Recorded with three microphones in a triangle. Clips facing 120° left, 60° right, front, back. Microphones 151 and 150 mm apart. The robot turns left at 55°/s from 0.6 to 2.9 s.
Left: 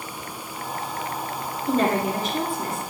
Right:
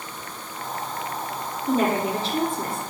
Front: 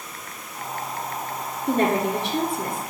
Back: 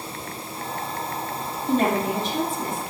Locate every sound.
1.7 s a woman speaking: 30° left, 2.5 m; by 2.8 s 35° right, 2.5 m